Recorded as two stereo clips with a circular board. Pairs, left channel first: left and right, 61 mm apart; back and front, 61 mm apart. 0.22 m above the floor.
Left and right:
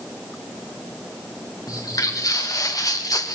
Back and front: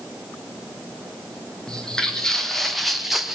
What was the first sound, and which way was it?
Footsteps, 100° left.